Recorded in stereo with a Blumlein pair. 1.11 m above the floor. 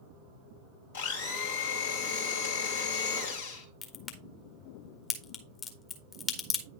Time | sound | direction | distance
0.9 | a blender | 60° left | 2.5 m
3.8 | a crack | 25° left | 1.6 m